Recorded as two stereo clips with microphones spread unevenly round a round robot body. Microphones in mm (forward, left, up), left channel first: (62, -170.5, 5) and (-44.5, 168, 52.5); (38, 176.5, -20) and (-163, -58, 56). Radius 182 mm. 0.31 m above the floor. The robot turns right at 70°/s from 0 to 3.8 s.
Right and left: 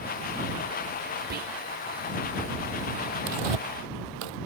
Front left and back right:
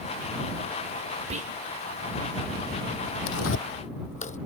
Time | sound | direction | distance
1.3 | whispering | 155° left | ?
3.3 | tearing paper | 80° left | ?